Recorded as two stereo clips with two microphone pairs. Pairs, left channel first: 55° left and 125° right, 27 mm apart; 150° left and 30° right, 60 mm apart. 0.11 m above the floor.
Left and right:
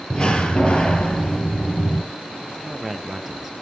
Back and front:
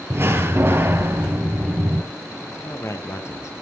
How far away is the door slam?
About 2.0 m.